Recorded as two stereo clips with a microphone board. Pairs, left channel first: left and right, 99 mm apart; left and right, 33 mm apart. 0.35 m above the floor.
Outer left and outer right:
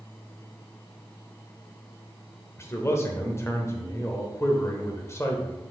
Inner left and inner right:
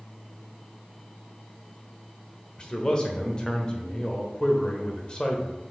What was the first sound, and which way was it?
A man speaking, 25° left (ahead or behind).